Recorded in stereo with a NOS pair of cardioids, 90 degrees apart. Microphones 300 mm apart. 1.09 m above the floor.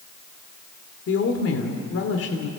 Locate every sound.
1.1 s a woman speaking: 50° left, 3 m